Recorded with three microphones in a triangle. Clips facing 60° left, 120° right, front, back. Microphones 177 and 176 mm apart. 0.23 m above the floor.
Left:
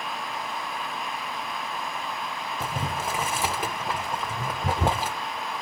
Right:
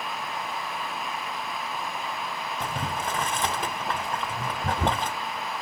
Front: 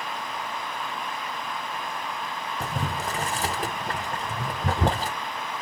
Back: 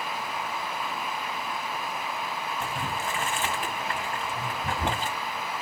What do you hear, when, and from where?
2.6 s boiling: 20° right, 0.5 m